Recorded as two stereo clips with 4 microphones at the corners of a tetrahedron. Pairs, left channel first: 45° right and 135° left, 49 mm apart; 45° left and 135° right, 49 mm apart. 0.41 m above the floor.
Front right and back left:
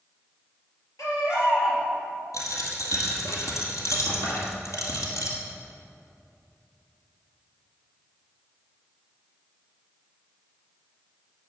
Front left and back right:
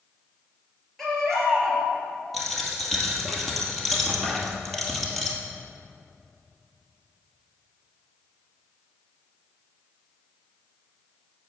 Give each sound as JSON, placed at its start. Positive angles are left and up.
{"t": 1.0, "sound": "a baby crying", "azimuth_deg": -40, "distance_m": 3.5}
{"t": 2.3, "sound": "a dropped coin", "azimuth_deg": -45, "distance_m": 2.0}